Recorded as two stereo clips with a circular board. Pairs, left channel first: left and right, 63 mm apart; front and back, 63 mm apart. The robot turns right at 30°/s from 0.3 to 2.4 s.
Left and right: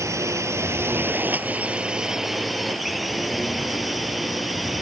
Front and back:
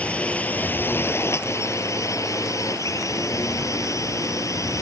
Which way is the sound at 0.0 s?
65° right.